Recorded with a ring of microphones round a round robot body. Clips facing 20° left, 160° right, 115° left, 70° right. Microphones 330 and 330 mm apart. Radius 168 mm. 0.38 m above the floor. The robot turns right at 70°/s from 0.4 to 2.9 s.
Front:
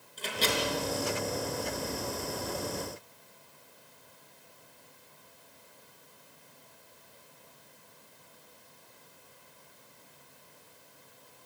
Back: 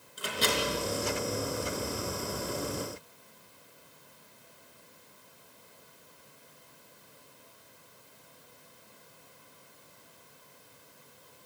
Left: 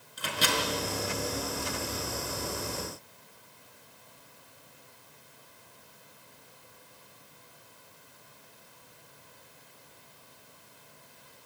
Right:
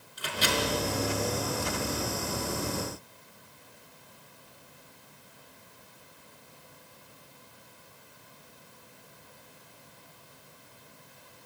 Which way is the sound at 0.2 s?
125° left.